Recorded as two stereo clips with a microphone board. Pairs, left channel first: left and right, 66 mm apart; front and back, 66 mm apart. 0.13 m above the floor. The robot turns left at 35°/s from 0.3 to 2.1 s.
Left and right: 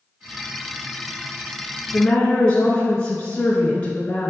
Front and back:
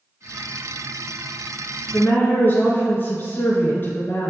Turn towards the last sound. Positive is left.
turn(degrees=30)